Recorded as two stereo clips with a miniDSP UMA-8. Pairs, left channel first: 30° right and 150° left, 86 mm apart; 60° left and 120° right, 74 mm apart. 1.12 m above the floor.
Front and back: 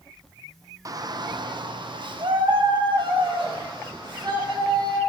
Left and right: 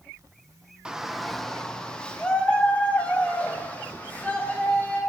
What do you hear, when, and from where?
0.8 s a shout: 165° left, 0.6 m; by 5.0 s 130° left, 3 m